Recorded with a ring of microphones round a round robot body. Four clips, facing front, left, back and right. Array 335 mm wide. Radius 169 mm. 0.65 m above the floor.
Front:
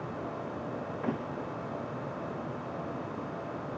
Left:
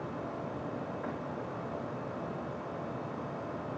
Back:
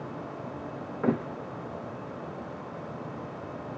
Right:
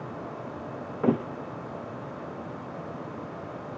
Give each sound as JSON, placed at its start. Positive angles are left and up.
{"t": 1.0, "sound": "a thud", "azimuth_deg": -110}